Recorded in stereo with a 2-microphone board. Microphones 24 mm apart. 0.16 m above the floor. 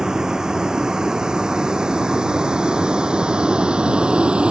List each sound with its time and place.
0.0 s a vehicle: 30° right (ahead or behind); by 4.5 s 50° right (ahead or behind)